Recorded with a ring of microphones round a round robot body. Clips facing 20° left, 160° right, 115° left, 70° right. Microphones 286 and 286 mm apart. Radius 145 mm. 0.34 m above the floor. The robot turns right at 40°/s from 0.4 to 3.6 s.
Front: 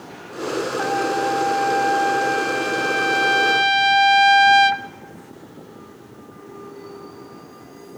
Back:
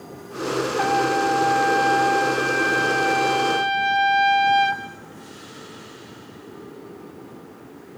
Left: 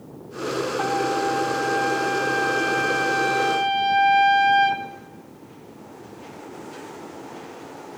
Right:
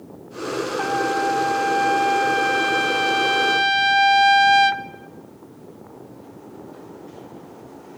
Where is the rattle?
No rattle in this recording.